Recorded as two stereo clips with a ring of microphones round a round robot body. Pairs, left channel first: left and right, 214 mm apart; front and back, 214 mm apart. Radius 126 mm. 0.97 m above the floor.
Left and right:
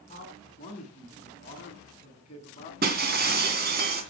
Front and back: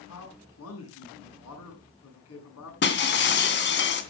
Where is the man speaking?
25° left, 9 m.